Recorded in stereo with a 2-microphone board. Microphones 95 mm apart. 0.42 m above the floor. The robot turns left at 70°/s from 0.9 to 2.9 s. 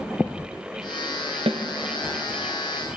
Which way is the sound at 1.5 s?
90° right.